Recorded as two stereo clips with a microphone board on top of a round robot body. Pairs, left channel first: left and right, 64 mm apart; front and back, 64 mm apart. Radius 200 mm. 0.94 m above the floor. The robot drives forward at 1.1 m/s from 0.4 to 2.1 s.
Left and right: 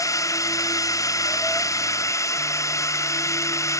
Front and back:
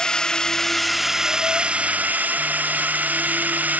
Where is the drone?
75° left; by 3.8 s 115° left.